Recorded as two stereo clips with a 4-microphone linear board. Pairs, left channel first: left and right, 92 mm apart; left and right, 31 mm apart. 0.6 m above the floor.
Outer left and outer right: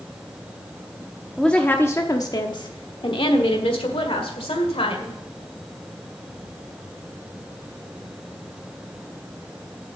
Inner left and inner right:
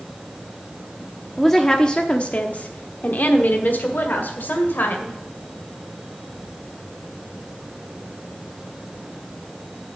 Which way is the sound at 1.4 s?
5° left (ahead or behind).